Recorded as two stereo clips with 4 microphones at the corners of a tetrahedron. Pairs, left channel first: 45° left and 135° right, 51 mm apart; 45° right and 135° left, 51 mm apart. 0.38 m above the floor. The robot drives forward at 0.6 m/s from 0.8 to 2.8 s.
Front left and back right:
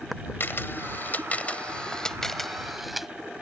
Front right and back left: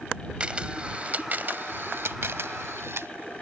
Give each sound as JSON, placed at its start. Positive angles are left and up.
{"t": 0.4, "sound": "a camera shutter", "azimuth_deg": 75}